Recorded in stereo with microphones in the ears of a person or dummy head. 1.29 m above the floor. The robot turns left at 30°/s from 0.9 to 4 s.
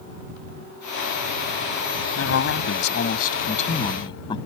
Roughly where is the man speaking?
Left.